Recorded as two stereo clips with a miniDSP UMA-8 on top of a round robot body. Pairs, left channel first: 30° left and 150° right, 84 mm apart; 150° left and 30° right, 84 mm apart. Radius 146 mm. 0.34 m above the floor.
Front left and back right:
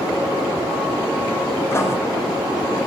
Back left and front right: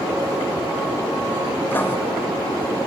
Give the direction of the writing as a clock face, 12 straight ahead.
9 o'clock.